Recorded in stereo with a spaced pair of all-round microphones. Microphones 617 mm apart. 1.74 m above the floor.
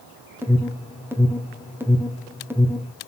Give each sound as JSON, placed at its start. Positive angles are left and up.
{"t": 0.4, "sound": "an alarm", "side_deg": -5, "distance_m": 1.8}